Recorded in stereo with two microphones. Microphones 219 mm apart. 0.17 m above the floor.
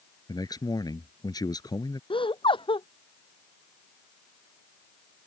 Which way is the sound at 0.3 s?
20° left (ahead or behind).